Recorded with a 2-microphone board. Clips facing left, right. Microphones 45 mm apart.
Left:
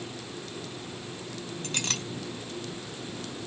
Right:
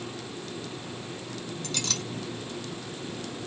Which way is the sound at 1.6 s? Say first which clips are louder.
Left 1 dB; 35° left (ahead or behind).